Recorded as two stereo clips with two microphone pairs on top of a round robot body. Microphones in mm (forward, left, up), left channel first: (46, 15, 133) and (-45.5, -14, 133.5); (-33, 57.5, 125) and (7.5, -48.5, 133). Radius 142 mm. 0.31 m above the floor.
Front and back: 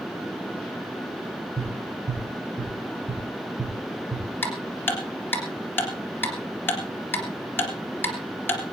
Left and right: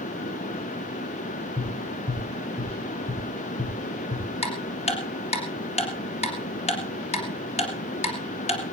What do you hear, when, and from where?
1.6 s tapping: 160° left, 7.5 m
4.4 s ticking: 85° left, 3 m